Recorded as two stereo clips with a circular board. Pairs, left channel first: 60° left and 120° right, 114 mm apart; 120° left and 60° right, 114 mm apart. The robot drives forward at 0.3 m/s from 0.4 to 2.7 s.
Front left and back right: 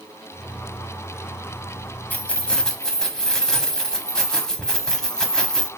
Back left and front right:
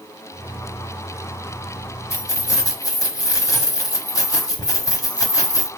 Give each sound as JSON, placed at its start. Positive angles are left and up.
{"t": 2.1, "sound": "keys jangling", "azimuth_deg": 120, "distance_m": 0.7}